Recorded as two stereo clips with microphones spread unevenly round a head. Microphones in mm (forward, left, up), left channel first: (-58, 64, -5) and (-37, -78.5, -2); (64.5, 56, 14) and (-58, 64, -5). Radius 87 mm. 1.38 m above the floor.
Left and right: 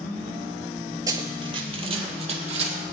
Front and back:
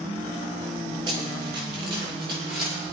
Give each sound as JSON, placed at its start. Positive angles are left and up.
{"t": 1.1, "sound": "running footsteps", "azimuth_deg": -130, "distance_m": 1.7}